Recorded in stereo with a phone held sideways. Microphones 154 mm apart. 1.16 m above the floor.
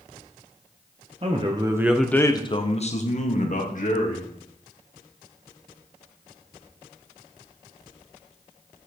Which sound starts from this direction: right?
A man speaking, at 1.2 s.